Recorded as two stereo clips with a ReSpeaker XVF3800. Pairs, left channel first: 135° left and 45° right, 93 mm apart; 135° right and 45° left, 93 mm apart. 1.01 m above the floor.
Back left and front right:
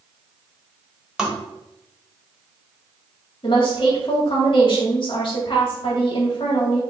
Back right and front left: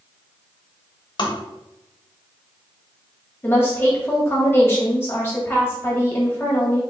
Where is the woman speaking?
160° left, 1.6 m.